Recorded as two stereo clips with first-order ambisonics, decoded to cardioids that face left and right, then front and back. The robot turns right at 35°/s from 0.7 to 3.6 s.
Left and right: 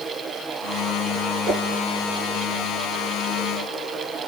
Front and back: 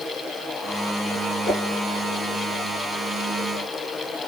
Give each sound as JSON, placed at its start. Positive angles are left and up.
{"t": 1.4, "sound": "a whoosh", "azimuth_deg": -60, "distance_m": 2.5}